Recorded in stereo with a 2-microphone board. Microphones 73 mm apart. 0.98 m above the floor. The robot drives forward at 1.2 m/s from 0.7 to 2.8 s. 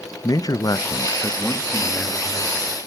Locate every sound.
0.2 s a man speaking: 60° left (ahead or behind), 0.5 m; by 2.8 s 10° left (ahead or behind), 2.5 m